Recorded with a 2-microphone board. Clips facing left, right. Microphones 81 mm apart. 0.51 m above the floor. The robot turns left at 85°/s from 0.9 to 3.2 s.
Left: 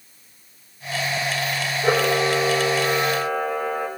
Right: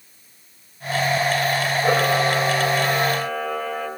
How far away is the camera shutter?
About 7.5 m.